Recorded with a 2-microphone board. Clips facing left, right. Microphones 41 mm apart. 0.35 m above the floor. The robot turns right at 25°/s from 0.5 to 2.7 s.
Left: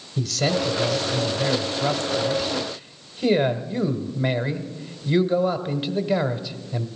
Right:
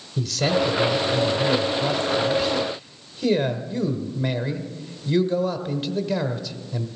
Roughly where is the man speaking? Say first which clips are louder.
Right 1 dB; centre.